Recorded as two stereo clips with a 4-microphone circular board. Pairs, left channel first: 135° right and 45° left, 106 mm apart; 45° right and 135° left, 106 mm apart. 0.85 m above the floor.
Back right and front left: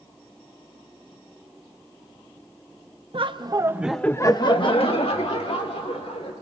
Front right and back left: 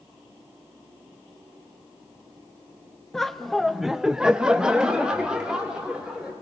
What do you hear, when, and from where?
3.1 s laughter: 40° left, 1.2 m; by 6.3 s 140° right, 3 m